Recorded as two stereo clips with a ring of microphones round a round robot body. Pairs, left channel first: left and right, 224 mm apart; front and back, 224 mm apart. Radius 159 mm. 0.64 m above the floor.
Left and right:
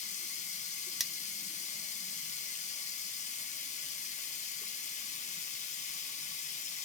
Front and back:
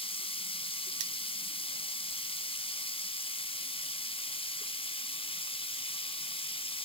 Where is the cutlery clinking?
Straight behind, 0.8 m.